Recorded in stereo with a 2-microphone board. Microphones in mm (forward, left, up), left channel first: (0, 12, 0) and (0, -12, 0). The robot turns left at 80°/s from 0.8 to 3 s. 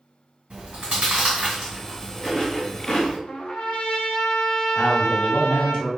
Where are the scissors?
I don't hear scissors.